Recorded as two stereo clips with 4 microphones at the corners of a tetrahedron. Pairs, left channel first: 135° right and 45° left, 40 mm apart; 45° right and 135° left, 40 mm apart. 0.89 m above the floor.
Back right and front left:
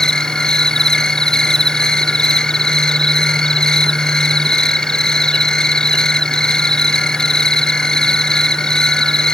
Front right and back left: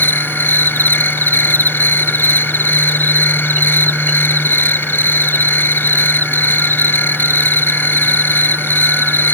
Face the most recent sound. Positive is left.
turn(degrees=-65)